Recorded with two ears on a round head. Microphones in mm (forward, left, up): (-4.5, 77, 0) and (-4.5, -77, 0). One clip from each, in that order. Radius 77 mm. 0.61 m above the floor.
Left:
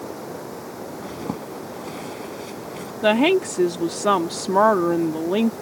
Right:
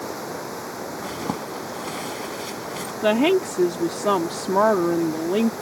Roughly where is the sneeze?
No sneeze in this recording.